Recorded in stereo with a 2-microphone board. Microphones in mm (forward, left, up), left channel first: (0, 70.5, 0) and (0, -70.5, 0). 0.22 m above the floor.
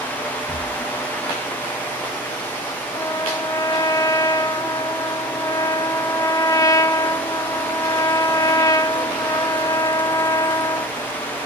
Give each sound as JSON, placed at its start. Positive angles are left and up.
{"t": 0.5, "sound": "breathing", "side_deg": 50, "distance_m": 2.0}
{"t": 2.9, "sound": "a trumpet", "side_deg": 25, "distance_m": 0.8}